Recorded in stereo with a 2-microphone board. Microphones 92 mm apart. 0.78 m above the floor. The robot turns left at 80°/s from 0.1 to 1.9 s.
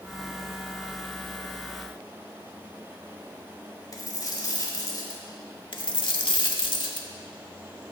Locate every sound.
3.9 s a dropped coin: 40° left (ahead or behind), 1.4 m
5.7 s a dropped coin: 60° left (ahead or behind), 0.8 m